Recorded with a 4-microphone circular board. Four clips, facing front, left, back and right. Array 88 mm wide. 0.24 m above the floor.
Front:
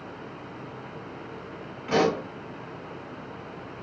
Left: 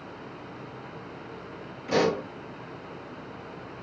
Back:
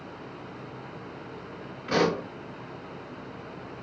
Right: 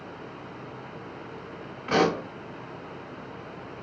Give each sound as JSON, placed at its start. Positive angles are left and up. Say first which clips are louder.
{"t": 1.9, "sound": "a pop", "louder": "right 1 dB, front 2 dB", "azimuth_deg": -85, "distance_m": 1.6}